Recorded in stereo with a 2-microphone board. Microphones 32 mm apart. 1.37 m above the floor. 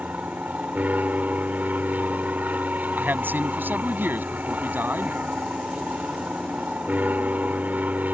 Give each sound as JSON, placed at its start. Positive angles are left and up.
{"t": 0.0, "sound": "an aircraft", "side_deg": -55}
{"t": 3.0, "sound": "a man speaking", "side_deg": -80}